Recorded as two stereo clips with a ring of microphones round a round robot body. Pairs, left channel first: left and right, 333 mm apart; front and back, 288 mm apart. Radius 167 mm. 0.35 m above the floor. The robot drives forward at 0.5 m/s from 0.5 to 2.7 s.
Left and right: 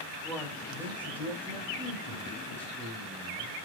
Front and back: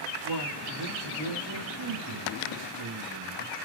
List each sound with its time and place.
0.2 s a man speaking: 175° left, 5 m